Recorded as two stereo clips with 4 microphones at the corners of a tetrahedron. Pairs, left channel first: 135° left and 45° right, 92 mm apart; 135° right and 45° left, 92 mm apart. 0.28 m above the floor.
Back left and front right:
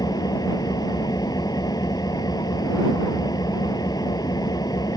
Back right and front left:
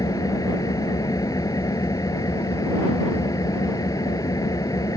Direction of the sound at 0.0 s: Straight behind.